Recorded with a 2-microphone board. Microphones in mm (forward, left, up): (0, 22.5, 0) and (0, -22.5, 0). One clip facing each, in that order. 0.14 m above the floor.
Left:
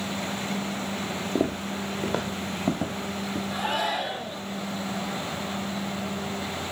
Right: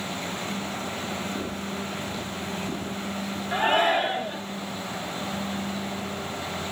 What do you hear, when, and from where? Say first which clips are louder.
1.4 s footsteps: left 4 dB; 85° left, 1.5 m; by 3.4 s 70° left (ahead or behind), 3 m
3.5 s a shout: right 7 dB; 40° right (ahead or behind), 2.5 m